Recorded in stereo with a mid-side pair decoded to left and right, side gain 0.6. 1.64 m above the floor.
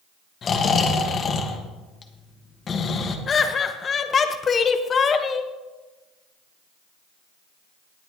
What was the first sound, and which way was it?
Snoring, 40° left.